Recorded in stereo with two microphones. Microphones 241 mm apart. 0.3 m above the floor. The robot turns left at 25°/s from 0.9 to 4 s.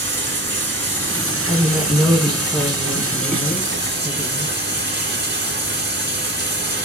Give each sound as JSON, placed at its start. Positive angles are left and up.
{"t": 0.0, "sound": "running water", "azimuth_deg": -55, "distance_m": 2.0}
{"t": 1.5, "sound": "a woman speaking", "azimuth_deg": -165, "distance_m": 1.2}